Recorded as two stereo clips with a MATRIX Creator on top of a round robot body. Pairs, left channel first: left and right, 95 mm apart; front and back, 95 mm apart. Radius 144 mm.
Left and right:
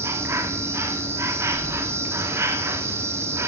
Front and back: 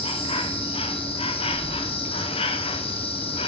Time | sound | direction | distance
0.0 | an insect | 25° right | 2.5 m